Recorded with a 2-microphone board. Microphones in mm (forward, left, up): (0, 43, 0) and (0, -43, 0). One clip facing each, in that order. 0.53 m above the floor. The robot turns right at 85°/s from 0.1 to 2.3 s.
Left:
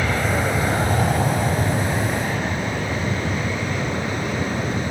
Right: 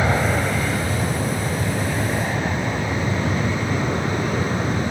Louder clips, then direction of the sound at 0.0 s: Right 1 dB; 25° right (ahead or behind).